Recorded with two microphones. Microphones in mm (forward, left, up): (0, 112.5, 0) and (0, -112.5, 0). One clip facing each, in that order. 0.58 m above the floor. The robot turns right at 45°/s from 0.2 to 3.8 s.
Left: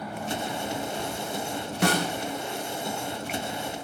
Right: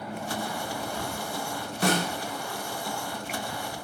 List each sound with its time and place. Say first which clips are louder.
1.8 s a snare drum: left 1 dB; 70° left (ahead or behind), 2 m; by 2.1 s 60° left (ahead or behind), 2 m